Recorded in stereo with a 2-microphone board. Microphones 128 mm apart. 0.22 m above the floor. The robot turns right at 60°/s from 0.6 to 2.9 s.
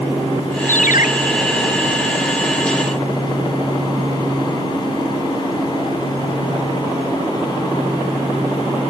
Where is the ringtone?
80° left.